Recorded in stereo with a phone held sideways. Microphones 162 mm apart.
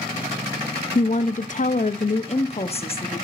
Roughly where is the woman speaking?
Left.